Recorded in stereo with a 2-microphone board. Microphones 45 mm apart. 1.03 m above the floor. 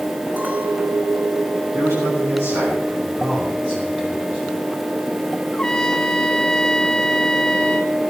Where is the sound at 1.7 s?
85° right, 9 m.